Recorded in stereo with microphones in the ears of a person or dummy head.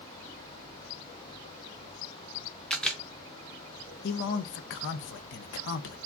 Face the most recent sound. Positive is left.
turn(degrees=60)  # may be behind; listen again after turning